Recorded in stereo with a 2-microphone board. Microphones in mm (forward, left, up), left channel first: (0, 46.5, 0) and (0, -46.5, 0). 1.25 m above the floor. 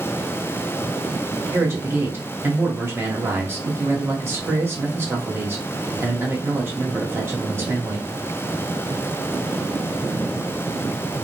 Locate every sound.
1.5 s a man speaking: 25° right (ahead or behind), 1.1 m